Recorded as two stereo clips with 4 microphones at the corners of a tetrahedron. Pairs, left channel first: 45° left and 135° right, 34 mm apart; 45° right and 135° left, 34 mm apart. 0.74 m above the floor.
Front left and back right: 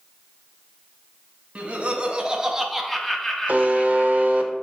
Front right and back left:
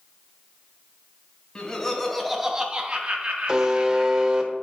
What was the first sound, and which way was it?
Laughter, 100° right.